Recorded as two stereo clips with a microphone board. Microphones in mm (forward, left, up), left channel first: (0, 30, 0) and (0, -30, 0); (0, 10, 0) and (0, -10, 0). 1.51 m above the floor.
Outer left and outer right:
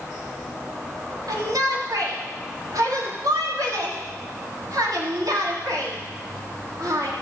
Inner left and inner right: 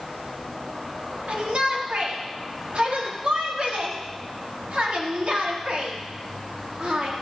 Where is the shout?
80° right, 3.5 m.